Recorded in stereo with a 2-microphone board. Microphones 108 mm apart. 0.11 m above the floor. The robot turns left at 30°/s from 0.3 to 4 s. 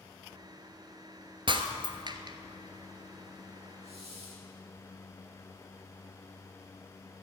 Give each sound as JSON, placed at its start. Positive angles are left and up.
{"t": 1.5, "sound": "breaking glass", "side_deg": -50, "distance_m": 1.2}
{"t": 3.8, "sound": "a hiss", "side_deg": -75, "distance_m": 4.5}